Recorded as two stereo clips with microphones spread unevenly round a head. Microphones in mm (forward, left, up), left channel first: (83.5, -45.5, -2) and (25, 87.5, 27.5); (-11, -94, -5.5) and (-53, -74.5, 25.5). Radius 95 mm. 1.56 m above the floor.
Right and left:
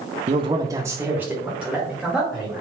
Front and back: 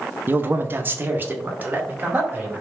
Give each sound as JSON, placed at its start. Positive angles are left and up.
{"t": 0.3, "sound": "a man speaking", "azimuth_deg": 160, "distance_m": 0.6}